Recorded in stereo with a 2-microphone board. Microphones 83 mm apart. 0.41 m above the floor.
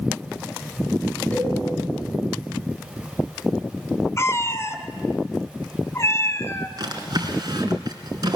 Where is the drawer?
50° right (ahead or behind), 3 m.